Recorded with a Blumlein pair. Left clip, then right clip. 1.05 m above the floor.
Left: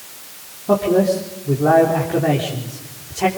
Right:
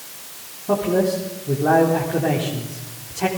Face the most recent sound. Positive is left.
turn(degrees=10)